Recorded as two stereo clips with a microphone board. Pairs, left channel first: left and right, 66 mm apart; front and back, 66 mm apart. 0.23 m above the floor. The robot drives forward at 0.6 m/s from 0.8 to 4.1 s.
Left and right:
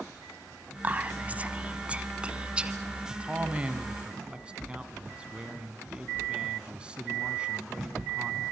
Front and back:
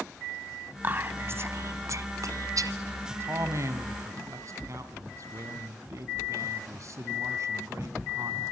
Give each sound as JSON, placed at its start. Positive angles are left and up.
{"t": 0.8, "sound": "whispering", "azimuth_deg": -135, "distance_m": 1.2}
{"t": 3.1, "sound": "a man speaking", "azimuth_deg": -150, "distance_m": 1.9}